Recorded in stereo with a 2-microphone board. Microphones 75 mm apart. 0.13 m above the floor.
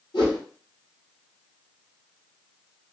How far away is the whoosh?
About 1.9 m.